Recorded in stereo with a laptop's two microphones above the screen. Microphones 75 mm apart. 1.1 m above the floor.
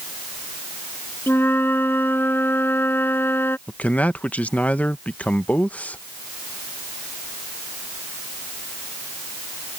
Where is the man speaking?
20° left (ahead or behind).